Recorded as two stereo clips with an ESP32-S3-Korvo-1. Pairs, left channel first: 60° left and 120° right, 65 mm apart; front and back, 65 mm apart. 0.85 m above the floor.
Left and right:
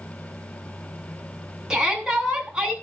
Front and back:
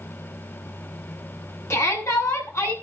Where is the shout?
40° right, 8 m.